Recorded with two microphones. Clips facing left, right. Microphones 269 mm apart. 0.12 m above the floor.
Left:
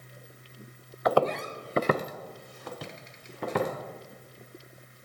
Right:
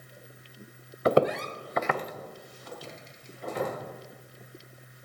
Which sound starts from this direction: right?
Footsteps, at 1.1 s.